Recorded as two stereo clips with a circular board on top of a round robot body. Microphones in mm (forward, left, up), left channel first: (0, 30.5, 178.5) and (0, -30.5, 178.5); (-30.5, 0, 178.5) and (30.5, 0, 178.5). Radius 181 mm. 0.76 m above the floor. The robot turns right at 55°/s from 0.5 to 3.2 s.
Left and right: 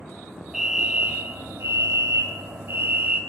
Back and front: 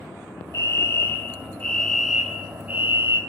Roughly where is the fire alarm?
Behind.